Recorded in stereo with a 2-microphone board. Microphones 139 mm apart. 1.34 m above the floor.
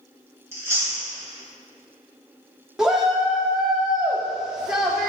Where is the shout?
5° right (ahead or behind), 0.5 m.